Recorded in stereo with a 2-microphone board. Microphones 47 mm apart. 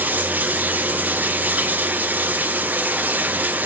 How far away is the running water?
About 0.8 m.